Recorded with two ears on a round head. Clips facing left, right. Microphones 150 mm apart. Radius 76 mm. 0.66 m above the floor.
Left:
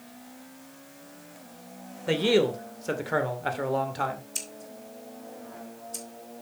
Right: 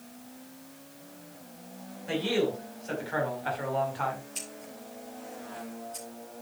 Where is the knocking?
I don't hear knocking.